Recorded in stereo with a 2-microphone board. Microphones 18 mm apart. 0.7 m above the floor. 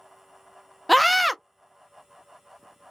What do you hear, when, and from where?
0.9 s a scream: centre (ahead or behind), 0.5 m